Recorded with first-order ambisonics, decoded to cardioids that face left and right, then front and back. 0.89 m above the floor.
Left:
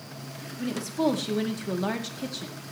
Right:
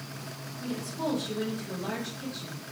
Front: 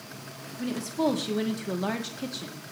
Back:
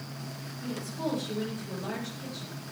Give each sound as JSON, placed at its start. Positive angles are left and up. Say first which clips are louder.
{"t": 0.6, "sound": "a woman speaking", "louder": "left 6 dB, front 7 dB", "azimuth_deg": 40, "distance_m": 2.0}